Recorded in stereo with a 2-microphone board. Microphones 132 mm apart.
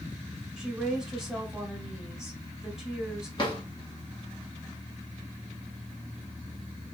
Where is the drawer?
35° left (ahead or behind), 1.6 m.